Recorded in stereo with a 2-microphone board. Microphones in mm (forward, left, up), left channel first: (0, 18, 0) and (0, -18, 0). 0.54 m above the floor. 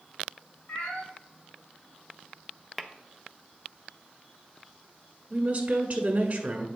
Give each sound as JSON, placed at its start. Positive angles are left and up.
{"t": 0.7, "sound": "a cat meowing", "side_deg": 75, "distance_m": 3.0}
{"t": 2.8, "sound": "tapping", "side_deg": 5, "distance_m": 0.5}
{"t": 5.3, "sound": "a woman speaking", "side_deg": -35, "distance_m": 1.2}